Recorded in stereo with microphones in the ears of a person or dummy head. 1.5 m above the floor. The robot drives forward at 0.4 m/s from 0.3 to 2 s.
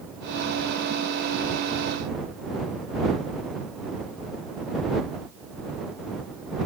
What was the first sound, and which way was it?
Only background noise.